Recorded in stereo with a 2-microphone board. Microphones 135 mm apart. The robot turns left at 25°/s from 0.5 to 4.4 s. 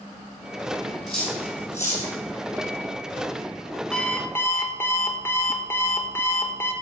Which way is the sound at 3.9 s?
5° left (ahead or behind).